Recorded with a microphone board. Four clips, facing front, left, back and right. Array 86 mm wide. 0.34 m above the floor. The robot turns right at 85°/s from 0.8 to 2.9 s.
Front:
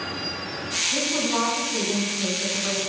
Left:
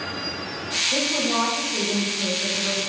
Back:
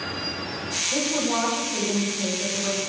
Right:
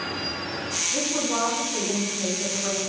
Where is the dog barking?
I don't hear a dog barking.